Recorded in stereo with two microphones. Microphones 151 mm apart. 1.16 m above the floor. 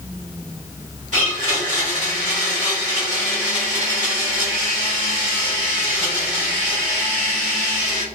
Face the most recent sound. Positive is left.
turn(degrees=-50)  # may be behind; listen again after turning